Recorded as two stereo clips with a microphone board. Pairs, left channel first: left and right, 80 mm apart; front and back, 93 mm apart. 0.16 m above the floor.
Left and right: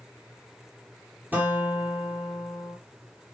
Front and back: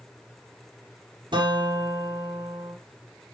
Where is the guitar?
160° right, 5 m.